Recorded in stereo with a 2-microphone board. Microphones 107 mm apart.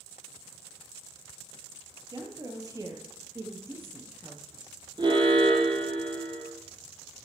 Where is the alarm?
40° right (ahead or behind), 1.8 m.